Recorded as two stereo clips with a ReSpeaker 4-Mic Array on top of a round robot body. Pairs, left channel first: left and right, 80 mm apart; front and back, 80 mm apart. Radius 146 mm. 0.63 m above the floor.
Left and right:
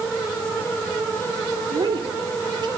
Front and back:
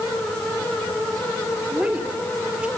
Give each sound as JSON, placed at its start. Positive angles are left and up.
{"t": 1.7, "sound": "a woman speaking", "azimuth_deg": -105, "distance_m": 3.0}